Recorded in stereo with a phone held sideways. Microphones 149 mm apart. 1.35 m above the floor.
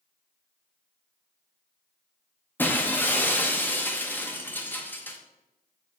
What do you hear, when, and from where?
2.6 s breaking glass: 10° left (ahead or behind), 0.8 m